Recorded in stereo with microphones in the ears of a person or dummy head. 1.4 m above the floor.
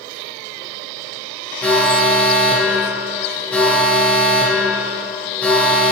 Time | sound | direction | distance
1.6 | an alarm | 5° left (ahead or behind) | 1.8 m